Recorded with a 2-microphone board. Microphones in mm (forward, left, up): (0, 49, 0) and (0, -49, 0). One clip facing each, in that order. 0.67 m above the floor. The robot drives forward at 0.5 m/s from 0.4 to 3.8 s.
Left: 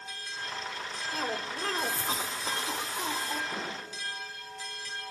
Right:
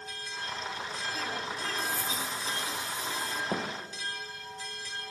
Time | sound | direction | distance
1.1 | a cough | 55° left (ahead or behind) | 2 m
3.5 | a thud | 75° right (ahead or behind) | 4 m